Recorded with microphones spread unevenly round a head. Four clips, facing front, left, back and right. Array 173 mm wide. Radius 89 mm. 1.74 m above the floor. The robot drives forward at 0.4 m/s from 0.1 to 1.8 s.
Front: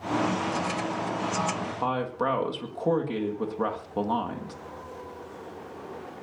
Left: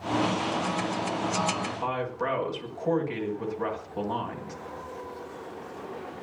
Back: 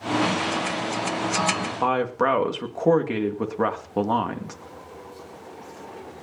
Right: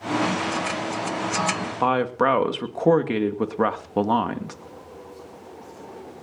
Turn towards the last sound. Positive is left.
turn(degrees=-115)